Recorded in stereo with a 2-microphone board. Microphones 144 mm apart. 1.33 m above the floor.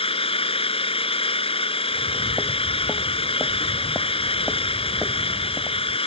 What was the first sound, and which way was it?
An engine running, 40° left (ahead or behind).